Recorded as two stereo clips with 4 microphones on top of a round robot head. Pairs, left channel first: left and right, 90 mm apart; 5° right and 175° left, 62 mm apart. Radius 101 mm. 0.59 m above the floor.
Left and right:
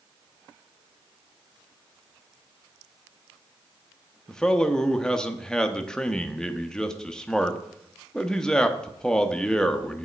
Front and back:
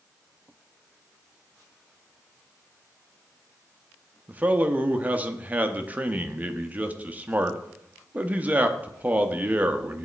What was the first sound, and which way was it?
A man speaking, 160° left.